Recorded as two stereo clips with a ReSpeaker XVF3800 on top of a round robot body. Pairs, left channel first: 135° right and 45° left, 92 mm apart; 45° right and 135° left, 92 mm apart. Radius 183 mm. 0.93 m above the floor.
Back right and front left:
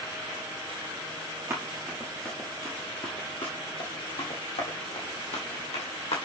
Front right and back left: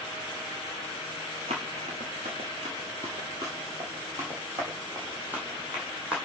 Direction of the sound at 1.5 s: 110° left.